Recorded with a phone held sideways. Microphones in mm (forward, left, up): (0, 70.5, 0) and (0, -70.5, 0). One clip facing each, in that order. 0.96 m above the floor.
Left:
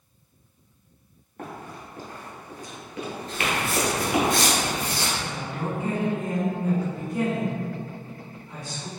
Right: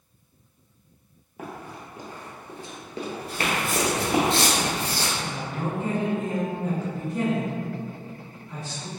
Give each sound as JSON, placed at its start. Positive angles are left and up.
{"t": 1.4, "sound": "running footsteps", "side_deg": -5, "distance_m": 1.2}
{"t": 3.3, "sound": "footsteps", "side_deg": -10, "distance_m": 0.9}
{"t": 5.2, "sound": "a woman speaking", "side_deg": 0, "distance_m": 1.8}